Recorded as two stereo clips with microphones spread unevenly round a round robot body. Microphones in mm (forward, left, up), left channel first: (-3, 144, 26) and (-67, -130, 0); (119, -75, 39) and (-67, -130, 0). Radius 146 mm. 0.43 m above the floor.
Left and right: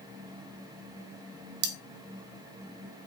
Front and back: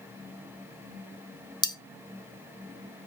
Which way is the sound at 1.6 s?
60° right.